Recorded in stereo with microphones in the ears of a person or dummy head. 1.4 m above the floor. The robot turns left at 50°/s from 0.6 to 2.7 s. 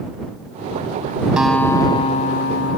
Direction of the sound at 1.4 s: 175° right.